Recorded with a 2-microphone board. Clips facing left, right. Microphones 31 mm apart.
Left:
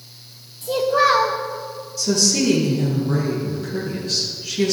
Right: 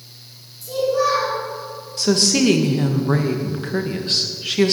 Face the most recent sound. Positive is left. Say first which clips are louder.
# right 2 dB
turn(degrees=-50)  # may be behind; listen again after turning